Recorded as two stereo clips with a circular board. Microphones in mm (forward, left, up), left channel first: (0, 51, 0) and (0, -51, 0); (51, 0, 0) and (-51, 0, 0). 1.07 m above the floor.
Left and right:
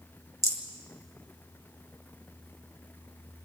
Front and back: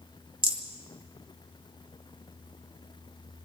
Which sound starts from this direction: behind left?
A rattle, at 0.4 s.